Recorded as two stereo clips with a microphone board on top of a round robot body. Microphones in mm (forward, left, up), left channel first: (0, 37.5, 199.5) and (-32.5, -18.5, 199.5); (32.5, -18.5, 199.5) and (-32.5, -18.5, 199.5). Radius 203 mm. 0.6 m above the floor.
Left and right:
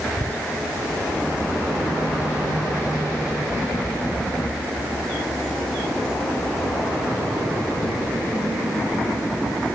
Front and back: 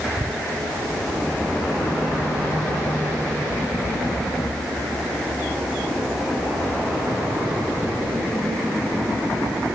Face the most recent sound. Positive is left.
No sound to turn to.